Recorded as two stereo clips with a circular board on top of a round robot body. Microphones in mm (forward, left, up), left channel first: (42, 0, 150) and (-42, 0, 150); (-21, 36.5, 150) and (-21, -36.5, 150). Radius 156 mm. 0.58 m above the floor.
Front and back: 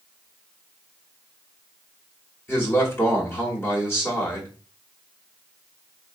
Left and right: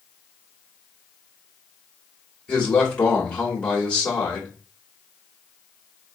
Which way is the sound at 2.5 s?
30° left.